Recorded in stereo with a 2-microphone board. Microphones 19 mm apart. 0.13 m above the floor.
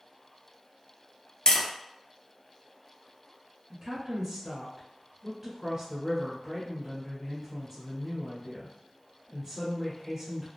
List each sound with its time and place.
1.5 s tapping: 60° left (ahead or behind), 0.6 m
3.7 s a woman speaking: 25° right (ahead or behind), 1.1 m